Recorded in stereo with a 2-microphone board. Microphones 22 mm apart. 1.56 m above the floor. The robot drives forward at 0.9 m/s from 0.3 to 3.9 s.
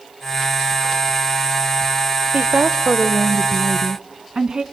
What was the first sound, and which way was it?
A woman speaking, 60° right (ahead or behind).